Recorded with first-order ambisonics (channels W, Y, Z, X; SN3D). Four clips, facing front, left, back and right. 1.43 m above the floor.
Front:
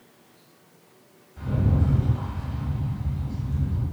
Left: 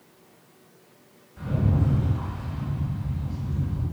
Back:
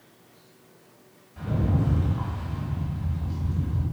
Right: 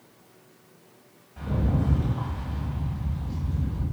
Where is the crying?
No crying in this recording.